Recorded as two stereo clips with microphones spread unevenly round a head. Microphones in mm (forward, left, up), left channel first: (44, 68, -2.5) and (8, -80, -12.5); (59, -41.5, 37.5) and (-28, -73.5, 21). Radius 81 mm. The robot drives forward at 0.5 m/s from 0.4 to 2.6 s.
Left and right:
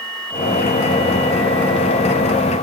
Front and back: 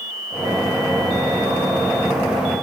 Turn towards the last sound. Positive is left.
No sound to turn to.